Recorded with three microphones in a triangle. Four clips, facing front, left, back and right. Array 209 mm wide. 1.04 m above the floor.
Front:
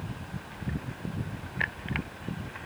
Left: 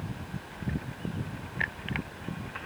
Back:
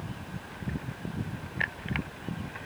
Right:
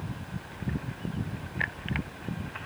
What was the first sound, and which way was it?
Only background noise.